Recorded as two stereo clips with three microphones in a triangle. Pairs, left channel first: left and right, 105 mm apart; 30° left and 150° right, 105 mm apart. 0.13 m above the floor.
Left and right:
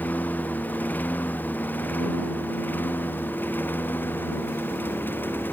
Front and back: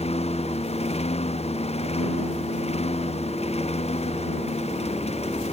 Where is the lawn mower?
15° left; by 5.5 s 20° left.